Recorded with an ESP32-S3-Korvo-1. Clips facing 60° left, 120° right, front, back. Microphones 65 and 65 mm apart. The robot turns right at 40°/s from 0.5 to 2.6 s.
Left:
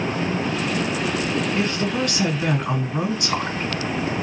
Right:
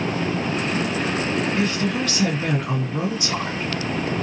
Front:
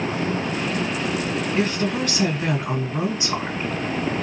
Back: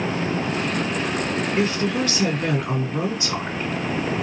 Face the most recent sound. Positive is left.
turn(degrees=60)